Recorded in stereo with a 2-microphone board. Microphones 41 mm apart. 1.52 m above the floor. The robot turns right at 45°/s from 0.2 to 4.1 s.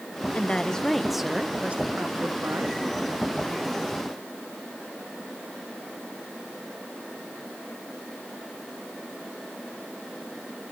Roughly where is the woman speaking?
Behind left.